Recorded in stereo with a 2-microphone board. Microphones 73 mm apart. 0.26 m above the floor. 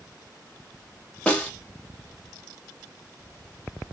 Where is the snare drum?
15° left (ahead or behind), 1.3 m.